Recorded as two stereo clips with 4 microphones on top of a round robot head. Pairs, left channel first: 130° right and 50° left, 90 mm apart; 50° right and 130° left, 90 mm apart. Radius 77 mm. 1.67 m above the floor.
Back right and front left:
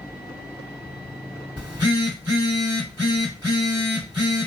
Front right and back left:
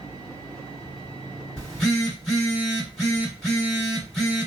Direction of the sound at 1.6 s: 130° right.